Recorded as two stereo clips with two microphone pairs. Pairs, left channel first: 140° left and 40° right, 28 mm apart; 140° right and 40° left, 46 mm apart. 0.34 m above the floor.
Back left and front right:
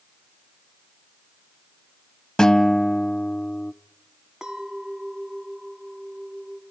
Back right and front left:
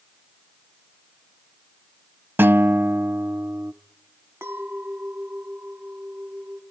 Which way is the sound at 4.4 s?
35° left.